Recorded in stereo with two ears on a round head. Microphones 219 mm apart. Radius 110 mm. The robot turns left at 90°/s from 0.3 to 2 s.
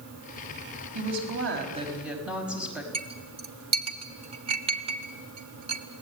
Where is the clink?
25° right (ahead or behind), 1.4 m.